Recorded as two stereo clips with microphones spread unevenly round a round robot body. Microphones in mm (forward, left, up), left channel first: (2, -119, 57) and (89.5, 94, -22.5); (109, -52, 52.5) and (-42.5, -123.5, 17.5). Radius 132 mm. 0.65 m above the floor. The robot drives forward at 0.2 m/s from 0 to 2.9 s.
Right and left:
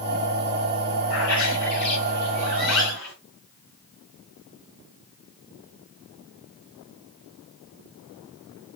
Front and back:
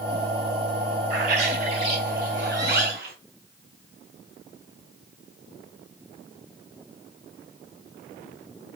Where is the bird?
140° right, 2.5 m; by 3.1 s 145° right, 3 m.